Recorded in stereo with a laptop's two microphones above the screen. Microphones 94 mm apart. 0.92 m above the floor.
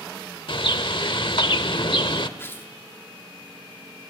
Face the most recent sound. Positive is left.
turn(degrees=25)  # may be behind; listen again after turning